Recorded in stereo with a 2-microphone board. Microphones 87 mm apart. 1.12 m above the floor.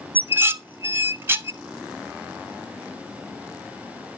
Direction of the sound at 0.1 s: 25° right (ahead or behind).